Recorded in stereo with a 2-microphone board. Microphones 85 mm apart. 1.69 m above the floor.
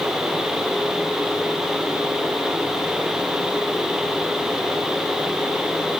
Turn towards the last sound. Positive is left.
No sound to turn to.